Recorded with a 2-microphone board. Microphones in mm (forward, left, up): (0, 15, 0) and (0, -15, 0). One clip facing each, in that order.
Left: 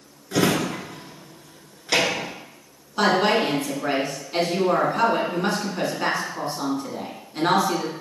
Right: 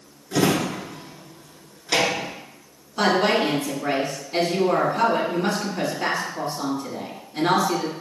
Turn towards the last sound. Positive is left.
turn(degrees=20)  # may be behind; listen again after turning